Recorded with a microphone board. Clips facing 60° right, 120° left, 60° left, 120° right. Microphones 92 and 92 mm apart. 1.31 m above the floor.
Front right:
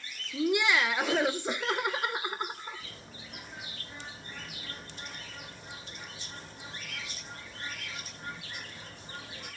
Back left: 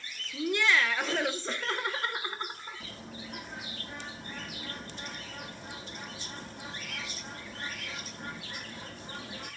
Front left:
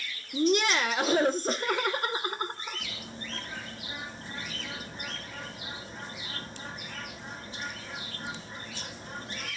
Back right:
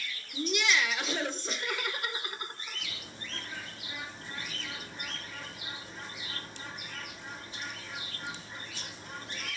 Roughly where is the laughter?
Ahead.